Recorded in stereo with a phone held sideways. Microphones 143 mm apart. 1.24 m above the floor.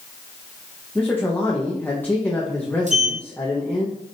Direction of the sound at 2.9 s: 55° right (ahead or behind).